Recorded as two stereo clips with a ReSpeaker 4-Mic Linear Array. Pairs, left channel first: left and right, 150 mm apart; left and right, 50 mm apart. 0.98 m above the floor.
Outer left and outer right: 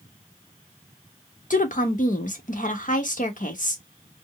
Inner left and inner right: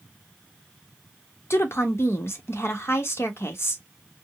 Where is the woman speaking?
60° left (ahead or behind), 1.2 m.